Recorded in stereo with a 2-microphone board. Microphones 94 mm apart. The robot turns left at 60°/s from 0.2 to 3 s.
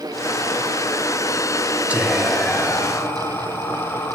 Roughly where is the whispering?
Behind right.